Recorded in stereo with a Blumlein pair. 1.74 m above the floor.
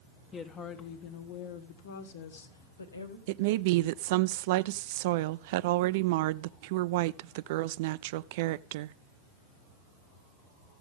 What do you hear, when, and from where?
0.3 s a woman speaking: 25° left, 1.4 m; by 3.2 s 80° left, 1.9 m
3.3 s a woman speaking: 50° right, 0.5 m